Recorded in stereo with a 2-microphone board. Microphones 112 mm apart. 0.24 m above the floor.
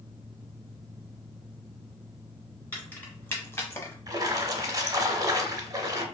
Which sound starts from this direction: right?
A splash, at 4.1 s.